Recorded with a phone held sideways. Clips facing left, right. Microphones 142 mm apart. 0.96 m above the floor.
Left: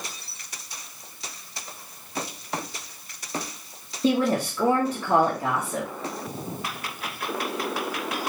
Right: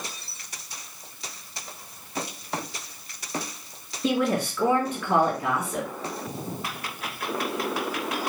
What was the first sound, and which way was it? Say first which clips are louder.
A woman speaking: left 2 dB; 30° left (ahead or behind).